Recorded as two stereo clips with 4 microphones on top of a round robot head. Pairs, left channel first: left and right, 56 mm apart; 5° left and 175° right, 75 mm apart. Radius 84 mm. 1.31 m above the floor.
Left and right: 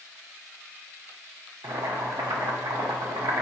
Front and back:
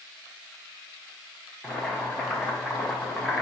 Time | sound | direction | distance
1.6 | boiling | 85° right | 0.9 m